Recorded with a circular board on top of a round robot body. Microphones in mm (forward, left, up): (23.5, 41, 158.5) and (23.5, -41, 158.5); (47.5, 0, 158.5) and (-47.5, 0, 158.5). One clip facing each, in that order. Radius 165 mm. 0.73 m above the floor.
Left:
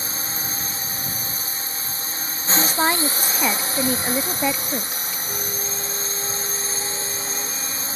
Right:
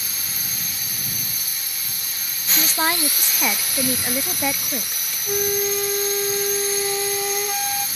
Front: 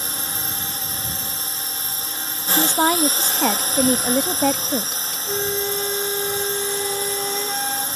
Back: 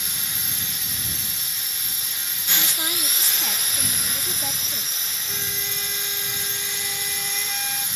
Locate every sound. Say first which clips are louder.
0.0 s a drone: left 5 dB, front 6 dB; 40° left
2.6 s a woman speaking: left 2 dB, front 15 dB; 5° left
5.3 s a flute: right 12 dB, front 13 dB; 60° right